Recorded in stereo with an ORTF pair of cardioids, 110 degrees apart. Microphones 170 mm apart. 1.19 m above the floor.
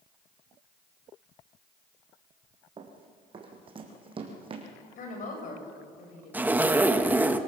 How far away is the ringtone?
I don't hear a ringtone.